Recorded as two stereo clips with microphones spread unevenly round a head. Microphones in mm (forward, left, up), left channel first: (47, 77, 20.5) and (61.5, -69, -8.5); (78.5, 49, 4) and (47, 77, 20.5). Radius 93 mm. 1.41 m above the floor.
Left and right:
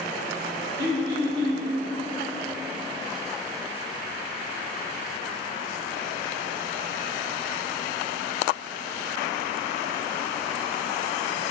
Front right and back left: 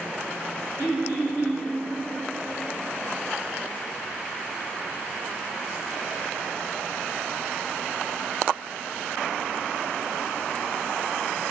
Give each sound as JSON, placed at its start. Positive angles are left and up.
{"t": 0.8, "sound": "throat clearing", "azimuth_deg": -85, "distance_m": 2.5}